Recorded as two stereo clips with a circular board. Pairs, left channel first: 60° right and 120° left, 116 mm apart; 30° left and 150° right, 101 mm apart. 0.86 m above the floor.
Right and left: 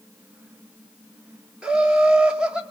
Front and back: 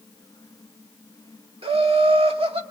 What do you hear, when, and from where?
1.6 s laughter: 160° right, 2 m